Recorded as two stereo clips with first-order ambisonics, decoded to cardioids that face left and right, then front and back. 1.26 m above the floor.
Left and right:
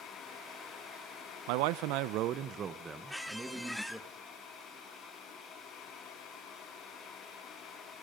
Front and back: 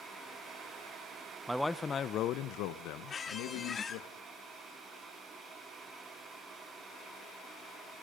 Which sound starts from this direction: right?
A man speaking, at 1.5 s.